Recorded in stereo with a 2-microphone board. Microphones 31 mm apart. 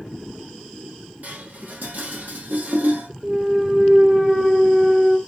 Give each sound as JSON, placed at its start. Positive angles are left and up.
{"t": 1.2, "sound": "dishes clattering", "side_deg": -70, "distance_m": 0.9}
{"t": 3.2, "sound": "a clunk", "side_deg": -20, "distance_m": 0.6}